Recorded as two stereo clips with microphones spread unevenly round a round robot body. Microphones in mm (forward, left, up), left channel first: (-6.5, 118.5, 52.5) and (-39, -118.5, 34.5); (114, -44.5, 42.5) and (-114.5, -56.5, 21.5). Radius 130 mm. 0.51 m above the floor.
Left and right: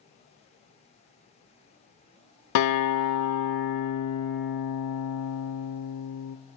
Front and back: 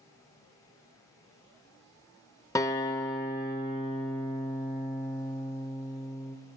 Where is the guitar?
85° left, 0.8 m.